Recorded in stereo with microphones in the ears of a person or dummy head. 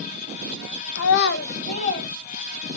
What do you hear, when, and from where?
0.9 s a child speaking: 75° left (ahead or behind), 0.5 m; by 2.1 s 35° left (ahead or behind), 1.4 m